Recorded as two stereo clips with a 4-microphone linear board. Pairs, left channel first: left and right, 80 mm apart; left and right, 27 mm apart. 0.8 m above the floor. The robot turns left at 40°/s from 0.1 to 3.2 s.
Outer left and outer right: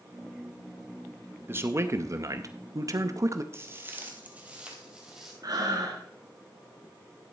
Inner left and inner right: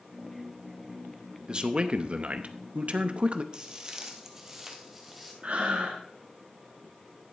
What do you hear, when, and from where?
1.5 s a man speaking: 40° right, 0.8 m; by 3.4 s 110° right, 0.8 m
3.5 s footsteps: 30° right (ahead or behind), 1.3 m; by 5.3 s 5° right (ahead or behind), 2.0 m
5.4 s breathing: 50° right (ahead or behind), 2 m